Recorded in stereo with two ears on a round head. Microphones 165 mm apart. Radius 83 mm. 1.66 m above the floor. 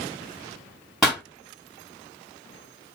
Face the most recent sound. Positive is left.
turn(degrees=0)  # may be behind; listen again after turning